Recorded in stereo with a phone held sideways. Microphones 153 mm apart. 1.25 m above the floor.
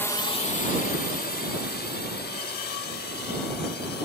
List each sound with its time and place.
0.0 s a drone: 10° left (ahead or behind); by 4.0 s 80° left